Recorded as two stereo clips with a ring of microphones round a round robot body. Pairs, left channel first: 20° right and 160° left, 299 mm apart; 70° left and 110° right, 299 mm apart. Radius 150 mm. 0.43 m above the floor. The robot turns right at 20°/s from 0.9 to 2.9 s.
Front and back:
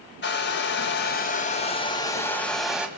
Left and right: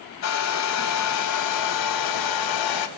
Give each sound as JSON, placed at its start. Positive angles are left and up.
{"t": 0.2, "sound": "a hair dryer", "azimuth_deg": 30, "distance_m": 2.0}